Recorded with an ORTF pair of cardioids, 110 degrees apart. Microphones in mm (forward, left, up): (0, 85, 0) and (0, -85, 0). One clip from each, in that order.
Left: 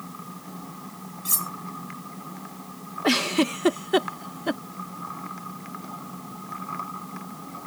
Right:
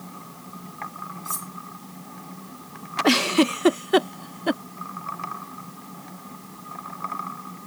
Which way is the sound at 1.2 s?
45° left.